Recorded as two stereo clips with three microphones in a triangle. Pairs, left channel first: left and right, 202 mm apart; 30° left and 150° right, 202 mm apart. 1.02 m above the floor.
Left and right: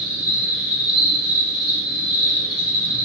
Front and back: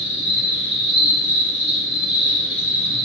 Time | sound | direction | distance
0.0 | an insect | 25° left | 1.2 m